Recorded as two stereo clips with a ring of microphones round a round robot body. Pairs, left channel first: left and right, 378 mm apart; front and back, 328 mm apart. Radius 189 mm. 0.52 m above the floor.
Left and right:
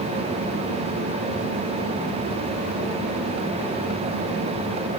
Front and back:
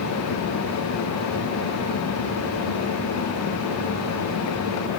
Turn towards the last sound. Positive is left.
No sound to turn to.